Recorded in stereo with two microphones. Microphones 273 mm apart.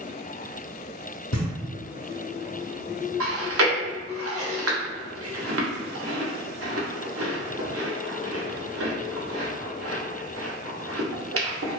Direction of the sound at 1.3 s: 75° left (ahead or behind).